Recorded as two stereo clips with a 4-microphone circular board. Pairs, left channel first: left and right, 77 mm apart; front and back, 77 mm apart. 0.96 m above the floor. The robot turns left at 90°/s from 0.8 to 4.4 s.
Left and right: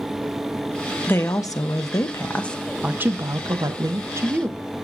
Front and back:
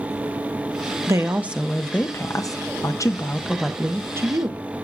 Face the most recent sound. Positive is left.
turn(degrees=-155)